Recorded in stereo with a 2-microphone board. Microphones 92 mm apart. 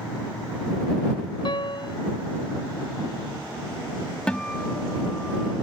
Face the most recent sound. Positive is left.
turn(degrees=10)  # may be behind; listen again after turning